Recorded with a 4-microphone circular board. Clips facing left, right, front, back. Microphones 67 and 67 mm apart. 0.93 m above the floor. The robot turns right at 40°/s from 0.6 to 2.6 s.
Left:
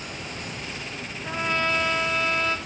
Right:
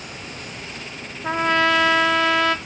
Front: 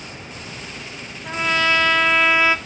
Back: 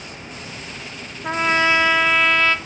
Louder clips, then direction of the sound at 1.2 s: Right 7 dB, back 2 dB; 130° right.